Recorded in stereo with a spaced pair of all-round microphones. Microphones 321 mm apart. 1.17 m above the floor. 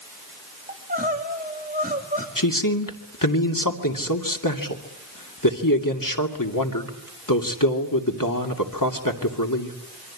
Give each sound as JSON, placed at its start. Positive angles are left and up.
{"t": 0.7, "sound": "crying", "side_deg": -25, "distance_m": 2.5}
{"t": 2.4, "sound": "a man speaking", "side_deg": 85, "distance_m": 2.5}